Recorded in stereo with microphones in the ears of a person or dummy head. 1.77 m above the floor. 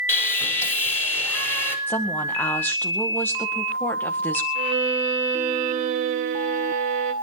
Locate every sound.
0.1 s sawing: 15° left (ahead or behind), 5 m
1.9 s a woman speaking: 15° left (ahead or behind), 2.0 m
4.5 s a violin: 45° right (ahead or behind), 3 m